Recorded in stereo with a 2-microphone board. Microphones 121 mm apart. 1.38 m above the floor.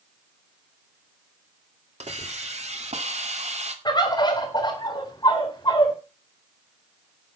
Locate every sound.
2.0 s a hiss: 75° right (ahead or behind), 2 m
3.9 s a bird: 40° left (ahead or behind), 3.5 m